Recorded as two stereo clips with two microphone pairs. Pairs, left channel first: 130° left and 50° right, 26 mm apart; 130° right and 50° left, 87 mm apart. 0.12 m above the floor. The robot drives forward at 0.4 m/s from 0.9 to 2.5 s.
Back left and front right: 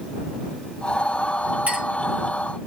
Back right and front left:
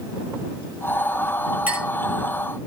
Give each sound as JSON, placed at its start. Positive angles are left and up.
{"t": 1.7, "sound": "a clink", "azimuth_deg": -20, "distance_m": 5.0}